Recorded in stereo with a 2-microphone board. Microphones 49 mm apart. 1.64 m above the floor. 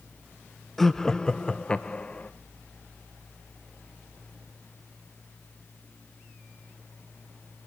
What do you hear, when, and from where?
0.8 s laughter: 5° left (ahead or behind), 0.7 m; by 2.3 s 30° left (ahead or behind), 1.3 m